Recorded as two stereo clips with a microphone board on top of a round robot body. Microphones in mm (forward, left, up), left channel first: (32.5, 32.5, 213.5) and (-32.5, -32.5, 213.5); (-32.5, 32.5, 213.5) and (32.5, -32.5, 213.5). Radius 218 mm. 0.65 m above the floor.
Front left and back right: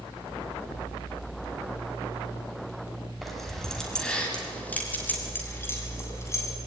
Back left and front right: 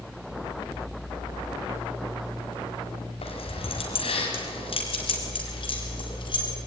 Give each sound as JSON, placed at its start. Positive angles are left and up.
{"t": 3.2, "sound": "keys jangling", "azimuth_deg": 135, "distance_m": 3.5}